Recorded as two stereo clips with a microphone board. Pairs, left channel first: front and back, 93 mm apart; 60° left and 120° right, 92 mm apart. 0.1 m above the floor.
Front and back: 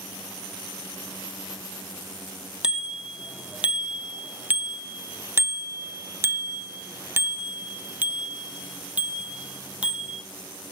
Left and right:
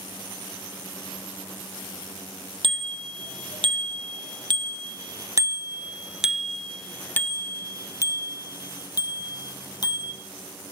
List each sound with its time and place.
2.6 s a bicycle bell: 100° right, 2.5 m; by 10.2 s 100° left, 3 m